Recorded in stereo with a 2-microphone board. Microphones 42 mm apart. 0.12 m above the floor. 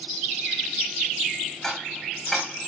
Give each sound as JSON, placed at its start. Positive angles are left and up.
{"t": 1.6, "sound": "ticking", "side_deg": 5, "distance_m": 4.0}